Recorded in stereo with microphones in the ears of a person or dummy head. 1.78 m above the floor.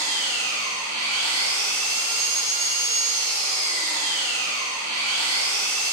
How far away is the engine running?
About 3 m.